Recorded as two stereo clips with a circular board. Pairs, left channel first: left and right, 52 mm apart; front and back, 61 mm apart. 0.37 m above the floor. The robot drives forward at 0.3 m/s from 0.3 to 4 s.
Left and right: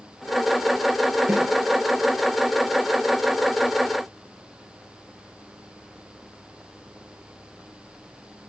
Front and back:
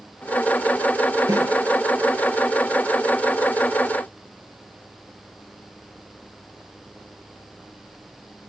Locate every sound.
1.3 s a snare drum: 165° right, 6 m; by 1.5 s 170° right, 6 m